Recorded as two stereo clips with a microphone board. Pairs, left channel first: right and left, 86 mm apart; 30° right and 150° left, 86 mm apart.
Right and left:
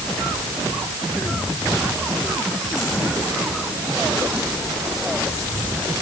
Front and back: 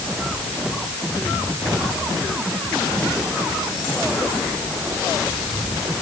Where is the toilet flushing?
I don't hear a toilet flushing.